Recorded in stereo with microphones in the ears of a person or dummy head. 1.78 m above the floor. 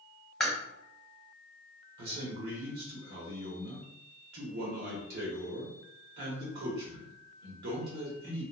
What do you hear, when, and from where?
0.4 s chewing: centre (ahead or behind), 0.8 m
2.0 s a man speaking: 65° right (ahead or behind), 0.9 m